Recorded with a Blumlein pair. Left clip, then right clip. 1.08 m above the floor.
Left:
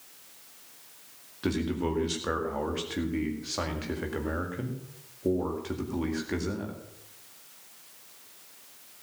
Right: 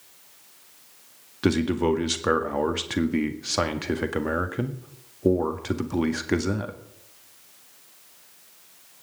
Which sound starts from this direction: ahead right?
A man speaking, at 1.4 s.